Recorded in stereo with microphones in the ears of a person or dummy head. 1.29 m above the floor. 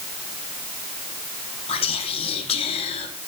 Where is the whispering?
30° left (ahead or behind), 1.1 m.